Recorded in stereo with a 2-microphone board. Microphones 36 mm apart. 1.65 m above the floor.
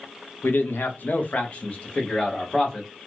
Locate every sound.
0.4 s a man speaking: 80° left, 0.7 m; by 2.9 s 20° left (ahead or behind), 1.3 m